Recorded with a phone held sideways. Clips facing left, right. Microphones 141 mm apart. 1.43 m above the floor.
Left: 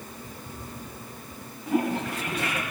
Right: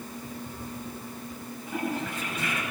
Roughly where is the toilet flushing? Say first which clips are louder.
Left 6 dB; left.